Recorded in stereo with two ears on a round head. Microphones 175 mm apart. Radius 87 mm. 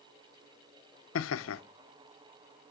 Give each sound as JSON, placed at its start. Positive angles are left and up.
{"t": 1.1, "sound": "laughter", "side_deg": 75, "distance_m": 0.6}